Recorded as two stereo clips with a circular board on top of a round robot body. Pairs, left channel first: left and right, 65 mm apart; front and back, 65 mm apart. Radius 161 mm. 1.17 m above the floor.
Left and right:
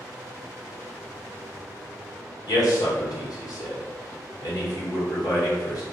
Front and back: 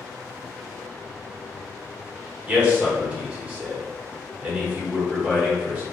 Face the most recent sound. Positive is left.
turn(degrees=110)